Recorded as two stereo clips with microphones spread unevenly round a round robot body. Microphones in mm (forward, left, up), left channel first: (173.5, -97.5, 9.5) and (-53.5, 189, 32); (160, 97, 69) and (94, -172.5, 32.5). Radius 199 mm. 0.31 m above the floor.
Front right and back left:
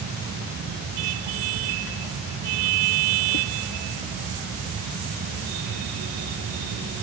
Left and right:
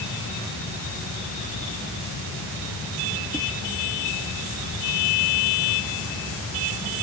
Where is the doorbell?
I don't hear a doorbell.